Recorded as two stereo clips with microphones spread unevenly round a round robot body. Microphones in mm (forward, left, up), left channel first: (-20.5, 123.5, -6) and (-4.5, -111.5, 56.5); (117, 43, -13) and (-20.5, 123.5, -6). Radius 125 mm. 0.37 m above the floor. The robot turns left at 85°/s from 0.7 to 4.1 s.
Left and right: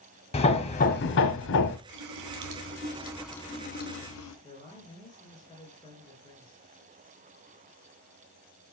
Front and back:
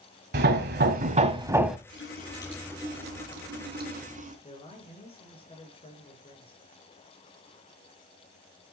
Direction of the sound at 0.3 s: 150° left.